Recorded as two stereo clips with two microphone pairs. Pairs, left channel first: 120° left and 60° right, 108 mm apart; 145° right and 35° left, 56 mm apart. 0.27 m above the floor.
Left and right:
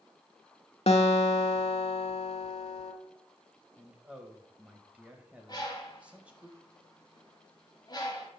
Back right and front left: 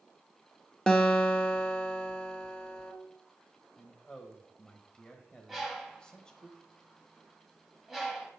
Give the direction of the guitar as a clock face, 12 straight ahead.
7 o'clock.